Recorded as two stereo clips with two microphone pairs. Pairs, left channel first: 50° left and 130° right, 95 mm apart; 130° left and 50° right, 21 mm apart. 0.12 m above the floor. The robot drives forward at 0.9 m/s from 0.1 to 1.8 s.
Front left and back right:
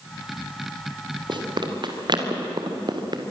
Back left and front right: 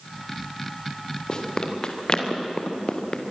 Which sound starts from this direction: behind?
Running footsteps, at 1.3 s.